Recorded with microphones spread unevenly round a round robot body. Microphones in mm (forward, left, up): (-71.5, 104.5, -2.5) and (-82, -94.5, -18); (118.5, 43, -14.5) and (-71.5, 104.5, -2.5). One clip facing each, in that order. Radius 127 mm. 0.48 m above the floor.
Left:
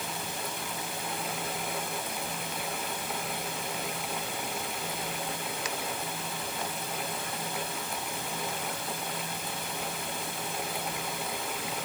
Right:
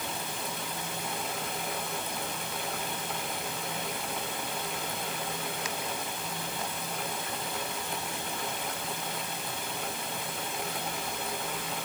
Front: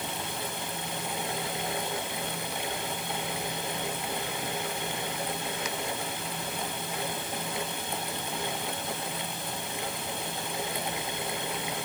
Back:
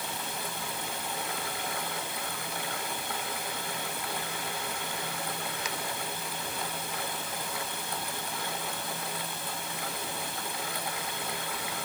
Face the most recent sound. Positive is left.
No sound to turn to.